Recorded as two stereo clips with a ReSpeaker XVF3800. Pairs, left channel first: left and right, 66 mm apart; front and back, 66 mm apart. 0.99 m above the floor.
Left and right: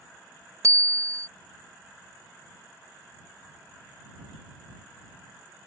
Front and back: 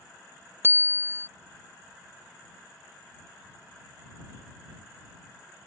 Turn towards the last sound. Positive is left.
turn(degrees=-130)